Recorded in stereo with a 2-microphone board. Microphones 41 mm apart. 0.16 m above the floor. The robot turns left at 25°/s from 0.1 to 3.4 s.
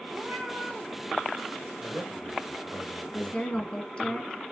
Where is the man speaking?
145° left, 4.5 m; by 4.1 s 105° left, 4.5 m.